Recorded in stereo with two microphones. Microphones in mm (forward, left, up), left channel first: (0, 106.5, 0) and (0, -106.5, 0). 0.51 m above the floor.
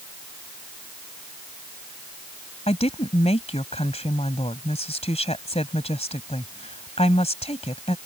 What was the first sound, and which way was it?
A woman speaking, 30° left (ahead or behind).